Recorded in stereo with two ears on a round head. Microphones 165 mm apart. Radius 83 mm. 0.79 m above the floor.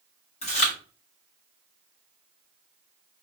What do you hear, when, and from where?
0.4 s chewing: 35° left (ahead or behind), 1.4 m